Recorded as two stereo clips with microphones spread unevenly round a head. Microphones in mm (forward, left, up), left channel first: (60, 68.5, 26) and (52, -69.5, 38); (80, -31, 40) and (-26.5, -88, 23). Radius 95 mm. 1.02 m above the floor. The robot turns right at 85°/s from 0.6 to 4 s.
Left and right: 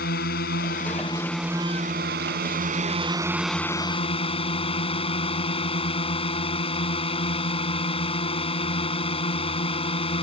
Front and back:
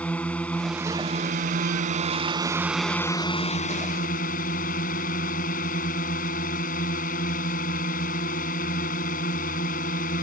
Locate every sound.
0.0 s a drone: 110° left; by 10.2 s 40° left